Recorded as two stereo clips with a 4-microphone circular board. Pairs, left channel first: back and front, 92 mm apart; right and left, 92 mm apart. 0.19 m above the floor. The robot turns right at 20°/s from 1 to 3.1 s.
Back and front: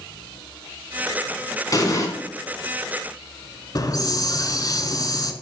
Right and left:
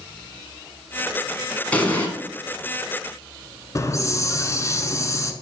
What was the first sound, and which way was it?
An explosion, 155° right.